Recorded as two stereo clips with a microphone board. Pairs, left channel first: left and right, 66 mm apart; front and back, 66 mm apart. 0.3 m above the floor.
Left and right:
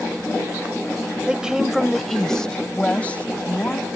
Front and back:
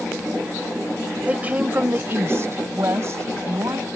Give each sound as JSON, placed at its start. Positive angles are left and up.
{"t": 1.3, "sound": "a woman speaking", "azimuth_deg": -145}